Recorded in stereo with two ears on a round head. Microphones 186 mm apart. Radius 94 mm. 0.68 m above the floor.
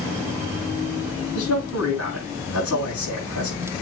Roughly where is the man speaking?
Left.